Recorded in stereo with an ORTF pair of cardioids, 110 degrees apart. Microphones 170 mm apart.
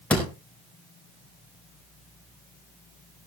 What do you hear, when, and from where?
0.1 s a door slam: 10° left, 5 m